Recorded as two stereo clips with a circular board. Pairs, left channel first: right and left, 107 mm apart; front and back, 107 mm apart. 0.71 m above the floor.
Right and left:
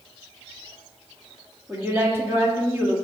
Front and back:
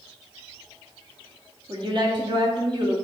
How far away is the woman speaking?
About 1.5 m.